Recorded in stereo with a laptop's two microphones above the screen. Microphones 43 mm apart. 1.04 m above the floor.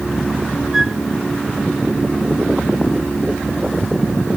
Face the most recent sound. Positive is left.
turn(degrees=-10)  # may be behind; listen again after turning